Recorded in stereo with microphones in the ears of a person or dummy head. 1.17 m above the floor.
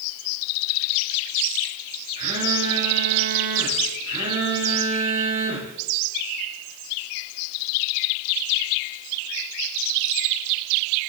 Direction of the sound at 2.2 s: 35° right (ahead or behind).